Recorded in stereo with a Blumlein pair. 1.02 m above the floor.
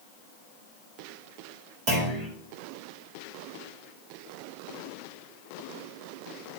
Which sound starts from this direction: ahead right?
A clunk, at 1.9 s.